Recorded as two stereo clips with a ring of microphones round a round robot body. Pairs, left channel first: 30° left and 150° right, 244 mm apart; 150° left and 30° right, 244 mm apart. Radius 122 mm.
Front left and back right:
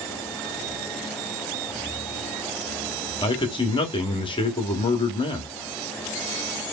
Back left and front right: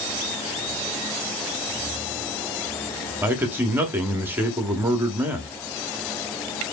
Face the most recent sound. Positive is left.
turn(degrees=35)